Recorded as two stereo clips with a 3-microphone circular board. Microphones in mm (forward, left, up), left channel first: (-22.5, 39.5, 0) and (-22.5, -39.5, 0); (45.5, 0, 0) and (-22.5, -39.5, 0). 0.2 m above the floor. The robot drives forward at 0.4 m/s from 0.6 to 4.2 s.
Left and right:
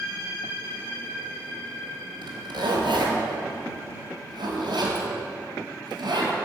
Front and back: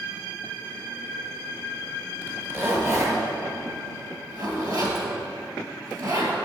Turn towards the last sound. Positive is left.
turn(degrees=-115)